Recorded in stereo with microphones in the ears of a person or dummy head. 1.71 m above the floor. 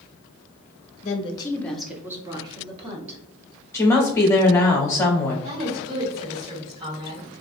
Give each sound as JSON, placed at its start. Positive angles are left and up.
{"t": 1.0, "sound": "a woman speaking", "side_deg": 40, "distance_m": 0.6}
{"t": 3.7, "sound": "a woman speaking", "side_deg": 20, "distance_m": 0.7}
{"t": 5.4, "sound": "a woman speaking", "side_deg": -50, "distance_m": 1.3}